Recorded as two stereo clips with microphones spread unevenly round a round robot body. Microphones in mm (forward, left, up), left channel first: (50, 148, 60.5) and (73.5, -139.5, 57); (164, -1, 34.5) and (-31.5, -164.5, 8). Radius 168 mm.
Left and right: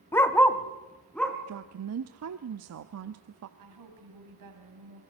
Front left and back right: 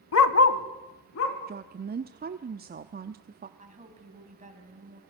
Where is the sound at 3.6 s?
80° right, 4 m.